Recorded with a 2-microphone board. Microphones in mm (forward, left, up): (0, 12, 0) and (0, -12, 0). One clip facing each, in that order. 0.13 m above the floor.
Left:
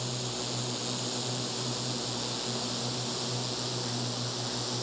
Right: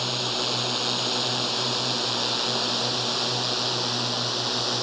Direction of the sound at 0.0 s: 50° right (ahead or behind).